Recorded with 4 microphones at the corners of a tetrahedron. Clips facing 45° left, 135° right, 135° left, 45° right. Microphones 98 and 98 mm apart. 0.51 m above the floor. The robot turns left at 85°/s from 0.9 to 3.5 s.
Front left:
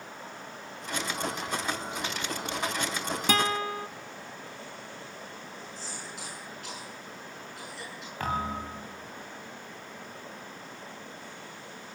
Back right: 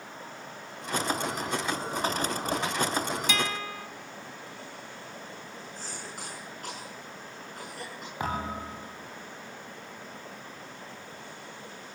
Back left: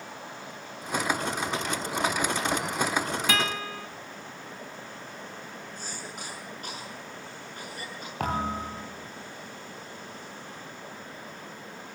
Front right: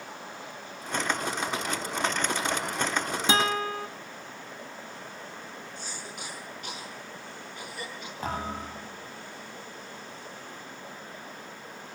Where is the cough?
Straight behind, 7.5 m.